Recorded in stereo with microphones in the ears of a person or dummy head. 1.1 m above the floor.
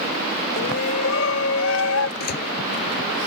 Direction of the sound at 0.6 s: 80° left.